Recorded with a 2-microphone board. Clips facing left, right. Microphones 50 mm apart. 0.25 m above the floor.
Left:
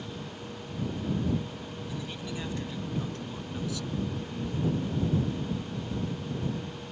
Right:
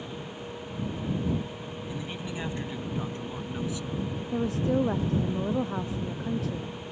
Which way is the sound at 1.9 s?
25° right (ahead or behind).